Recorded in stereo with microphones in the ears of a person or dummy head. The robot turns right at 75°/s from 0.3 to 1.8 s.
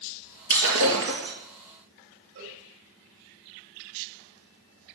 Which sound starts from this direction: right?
A cowbell, at 2.4 s.